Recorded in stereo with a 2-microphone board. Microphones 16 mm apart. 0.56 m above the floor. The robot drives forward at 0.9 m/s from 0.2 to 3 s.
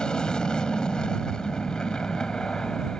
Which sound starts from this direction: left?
An aircraft, at 0.0 s.